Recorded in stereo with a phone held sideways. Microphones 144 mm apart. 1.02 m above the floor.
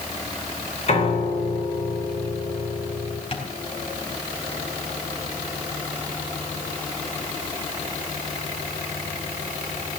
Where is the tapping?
40° left (ahead or behind), 3.5 m.